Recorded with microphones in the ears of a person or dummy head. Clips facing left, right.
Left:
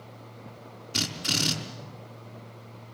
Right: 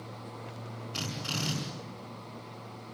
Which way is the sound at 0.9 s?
25° left (ahead or behind).